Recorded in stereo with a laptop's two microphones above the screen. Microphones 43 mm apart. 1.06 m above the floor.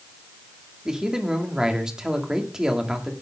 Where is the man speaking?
15° right (ahead or behind), 1.9 m.